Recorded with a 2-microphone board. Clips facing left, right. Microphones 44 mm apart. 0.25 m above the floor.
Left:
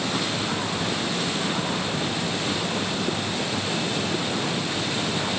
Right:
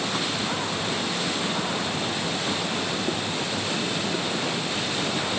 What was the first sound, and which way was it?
Only background noise.